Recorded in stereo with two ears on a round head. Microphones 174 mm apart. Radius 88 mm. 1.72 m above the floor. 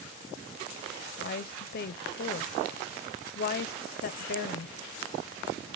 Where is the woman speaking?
50° left (ahead or behind), 0.6 m.